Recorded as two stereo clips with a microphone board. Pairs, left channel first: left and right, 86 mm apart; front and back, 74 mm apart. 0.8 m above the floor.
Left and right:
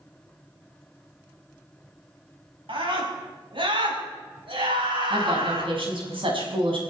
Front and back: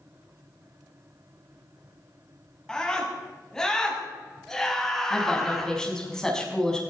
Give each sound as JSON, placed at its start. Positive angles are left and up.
{"t": 2.7, "sound": "a scream", "azimuth_deg": -80, "distance_m": 7.0}
{"t": 5.1, "sound": "a woman speaking", "azimuth_deg": -80, "distance_m": 5.5}